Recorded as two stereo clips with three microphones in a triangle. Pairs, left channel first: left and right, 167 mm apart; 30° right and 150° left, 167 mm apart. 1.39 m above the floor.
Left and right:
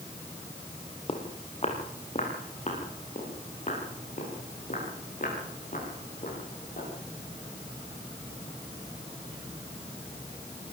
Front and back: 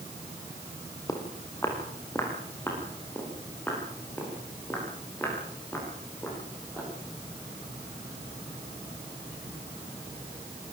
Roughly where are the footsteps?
Ahead left.